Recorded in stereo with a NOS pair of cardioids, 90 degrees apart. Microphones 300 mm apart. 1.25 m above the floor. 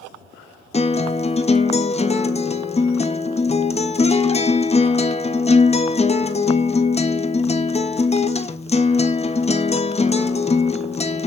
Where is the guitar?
20° left, 1.3 m.